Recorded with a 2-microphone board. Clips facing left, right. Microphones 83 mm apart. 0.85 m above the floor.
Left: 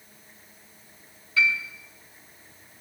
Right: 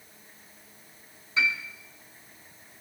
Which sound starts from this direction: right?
A piano, at 1.4 s.